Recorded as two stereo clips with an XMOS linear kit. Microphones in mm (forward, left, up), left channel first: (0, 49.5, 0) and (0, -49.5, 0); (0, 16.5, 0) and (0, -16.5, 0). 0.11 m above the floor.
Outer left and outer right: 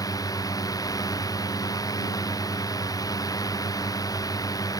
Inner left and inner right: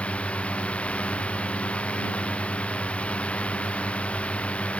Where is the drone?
35° left (ahead or behind).